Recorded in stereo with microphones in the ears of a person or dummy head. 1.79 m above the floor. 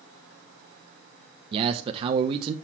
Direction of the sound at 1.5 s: 20° right (ahead or behind).